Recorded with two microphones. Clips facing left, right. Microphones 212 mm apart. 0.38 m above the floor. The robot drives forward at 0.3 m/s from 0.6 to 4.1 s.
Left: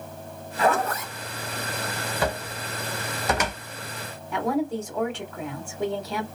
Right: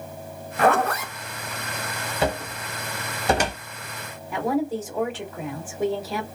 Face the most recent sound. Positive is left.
turn(degrees=-5)  # may be behind; listen again after turning